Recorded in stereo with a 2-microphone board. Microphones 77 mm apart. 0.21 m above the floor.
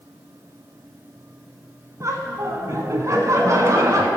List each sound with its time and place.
2.0 s laughter: 50° right (ahead or behind), 1.5 m